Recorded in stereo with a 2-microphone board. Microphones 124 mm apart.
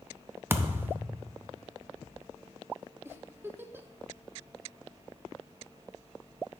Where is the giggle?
20° right (ahead or behind), 0.5 m.